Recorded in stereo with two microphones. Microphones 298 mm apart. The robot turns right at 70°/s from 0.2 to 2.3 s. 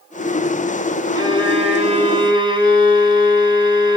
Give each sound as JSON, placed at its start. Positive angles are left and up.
{"t": 1.1, "sound": "a violin", "side_deg": -15, "distance_m": 1.7}